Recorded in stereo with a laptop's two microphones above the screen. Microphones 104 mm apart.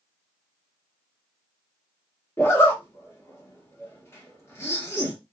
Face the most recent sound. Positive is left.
turn(degrees=25)  # may be behind; listen again after turning